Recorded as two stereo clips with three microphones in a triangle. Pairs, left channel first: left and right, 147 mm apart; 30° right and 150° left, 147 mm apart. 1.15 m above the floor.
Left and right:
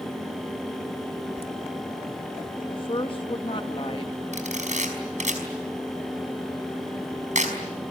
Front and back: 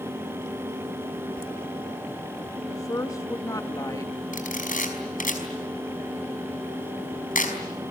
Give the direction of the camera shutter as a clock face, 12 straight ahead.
2 o'clock.